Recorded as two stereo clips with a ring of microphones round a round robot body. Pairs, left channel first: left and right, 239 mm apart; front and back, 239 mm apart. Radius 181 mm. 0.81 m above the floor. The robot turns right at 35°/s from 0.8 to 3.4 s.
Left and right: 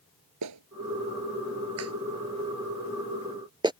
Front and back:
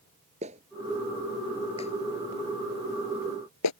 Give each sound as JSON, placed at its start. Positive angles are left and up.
{"t": 0.4, "sound": "a clap", "azimuth_deg": -110}